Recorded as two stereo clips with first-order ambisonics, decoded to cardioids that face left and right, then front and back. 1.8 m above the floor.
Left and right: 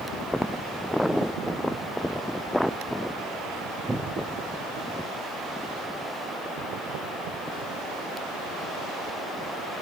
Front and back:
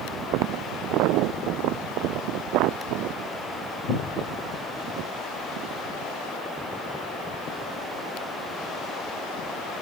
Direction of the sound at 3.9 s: 15° right.